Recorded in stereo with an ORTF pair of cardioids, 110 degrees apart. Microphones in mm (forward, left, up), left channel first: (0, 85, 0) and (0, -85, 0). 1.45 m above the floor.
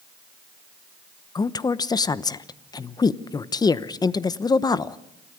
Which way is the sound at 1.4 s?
25° left.